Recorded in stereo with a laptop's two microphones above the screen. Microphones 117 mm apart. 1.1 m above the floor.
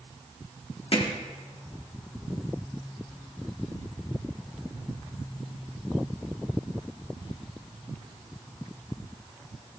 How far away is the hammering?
About 1.6 m.